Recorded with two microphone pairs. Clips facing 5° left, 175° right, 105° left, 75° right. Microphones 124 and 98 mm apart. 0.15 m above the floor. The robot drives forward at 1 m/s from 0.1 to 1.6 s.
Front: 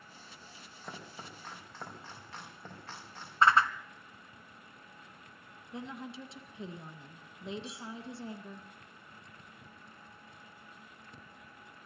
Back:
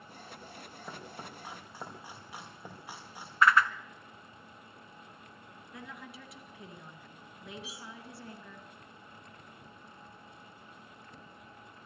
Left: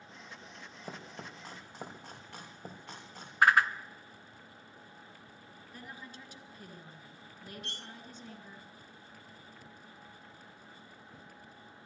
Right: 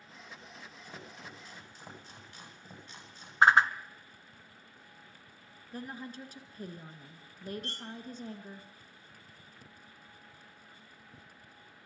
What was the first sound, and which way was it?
Chopping, 100° left.